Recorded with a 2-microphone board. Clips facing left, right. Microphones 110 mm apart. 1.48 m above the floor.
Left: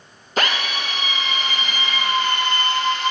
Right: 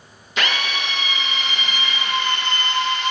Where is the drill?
45° left (ahead or behind), 1.6 m.